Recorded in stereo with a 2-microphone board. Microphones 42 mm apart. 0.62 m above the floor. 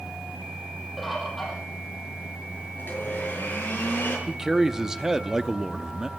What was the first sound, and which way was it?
A bird, centre (ahead or behind).